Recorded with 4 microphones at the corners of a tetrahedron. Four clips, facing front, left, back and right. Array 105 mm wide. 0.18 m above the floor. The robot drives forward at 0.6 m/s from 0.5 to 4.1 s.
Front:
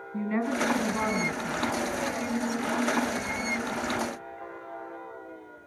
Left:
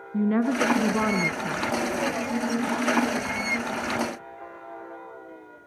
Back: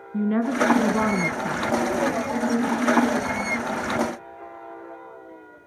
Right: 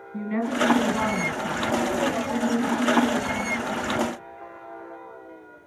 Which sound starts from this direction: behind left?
A woman speaking, at 0.1 s.